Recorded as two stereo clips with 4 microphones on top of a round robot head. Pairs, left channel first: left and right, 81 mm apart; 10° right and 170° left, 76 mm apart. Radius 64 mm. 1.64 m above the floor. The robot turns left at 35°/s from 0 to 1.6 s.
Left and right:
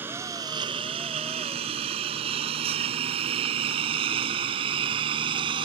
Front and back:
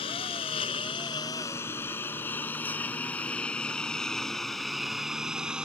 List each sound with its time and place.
0.0 s a lawn mower: 15° right; by 5.7 s 110° right